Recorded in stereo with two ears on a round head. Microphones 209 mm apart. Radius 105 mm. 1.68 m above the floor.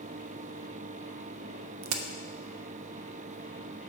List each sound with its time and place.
1.8 s a crack: 80° right, 0.6 m